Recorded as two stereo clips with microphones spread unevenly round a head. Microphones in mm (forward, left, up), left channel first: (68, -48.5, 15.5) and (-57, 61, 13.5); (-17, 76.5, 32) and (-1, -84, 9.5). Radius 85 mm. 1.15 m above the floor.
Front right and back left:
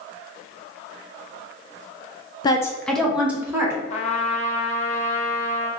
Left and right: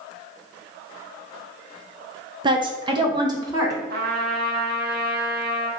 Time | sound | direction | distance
2.4 | a woman speaking | 85° right | 0.7 m
3.9 | a trumpet | 70° right | 0.7 m